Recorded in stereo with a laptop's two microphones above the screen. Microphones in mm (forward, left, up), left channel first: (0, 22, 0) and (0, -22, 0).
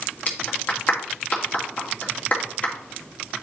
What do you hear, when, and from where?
0.3 s a clap: 35° left (ahead or behind), 2 m